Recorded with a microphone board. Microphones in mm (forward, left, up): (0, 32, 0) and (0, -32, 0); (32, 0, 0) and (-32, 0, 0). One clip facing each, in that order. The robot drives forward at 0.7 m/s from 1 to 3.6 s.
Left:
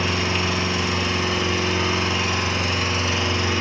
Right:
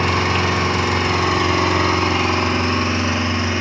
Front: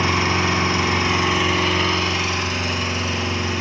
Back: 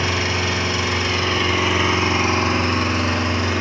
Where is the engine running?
60° right, 0.9 m; by 3.6 s 150° right, 1.6 m.